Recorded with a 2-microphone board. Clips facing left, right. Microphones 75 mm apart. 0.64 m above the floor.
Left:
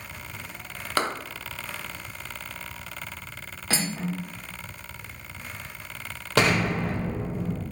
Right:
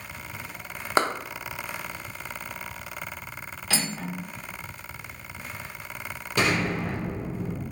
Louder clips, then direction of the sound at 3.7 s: Left 2 dB; 40° left (ahead or behind).